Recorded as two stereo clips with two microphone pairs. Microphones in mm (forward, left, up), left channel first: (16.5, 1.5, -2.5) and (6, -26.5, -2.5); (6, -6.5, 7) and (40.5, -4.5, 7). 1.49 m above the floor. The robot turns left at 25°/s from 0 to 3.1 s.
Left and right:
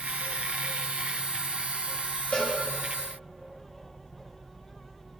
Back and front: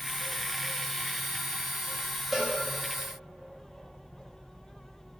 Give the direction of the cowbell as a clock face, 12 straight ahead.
9 o'clock.